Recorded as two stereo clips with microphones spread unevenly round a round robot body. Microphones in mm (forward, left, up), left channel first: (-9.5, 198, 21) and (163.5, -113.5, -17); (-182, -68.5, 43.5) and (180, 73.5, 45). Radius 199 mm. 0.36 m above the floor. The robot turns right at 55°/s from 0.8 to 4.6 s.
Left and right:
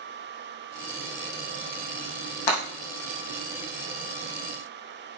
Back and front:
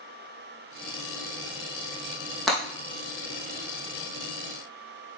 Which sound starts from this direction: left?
Breaking glass, at 2.5 s.